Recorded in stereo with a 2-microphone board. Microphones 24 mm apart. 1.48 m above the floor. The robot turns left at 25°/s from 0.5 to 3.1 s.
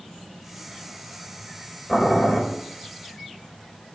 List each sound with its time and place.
1.9 s boiling: 10° left (ahead or behind), 5.5 m; by 2.4 s 25° left (ahead or behind), 5.5 m